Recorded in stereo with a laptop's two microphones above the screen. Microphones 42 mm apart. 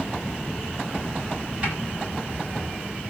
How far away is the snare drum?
About 9 m.